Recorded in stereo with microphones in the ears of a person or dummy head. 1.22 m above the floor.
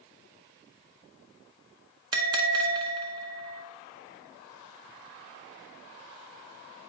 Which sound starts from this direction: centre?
A bell, at 2.1 s.